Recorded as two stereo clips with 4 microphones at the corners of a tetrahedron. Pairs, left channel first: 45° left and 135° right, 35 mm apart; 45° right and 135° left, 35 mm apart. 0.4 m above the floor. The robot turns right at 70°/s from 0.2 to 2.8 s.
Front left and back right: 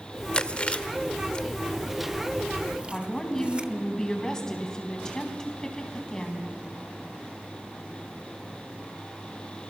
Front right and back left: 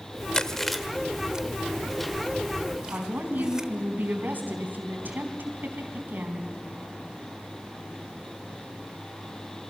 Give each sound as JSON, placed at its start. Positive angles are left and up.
{"t": 0.3, "sound": "chewing", "azimuth_deg": 10, "distance_m": 0.9}
{"t": 2.9, "sound": "a woman speaking", "azimuth_deg": 115, "distance_m": 4.0}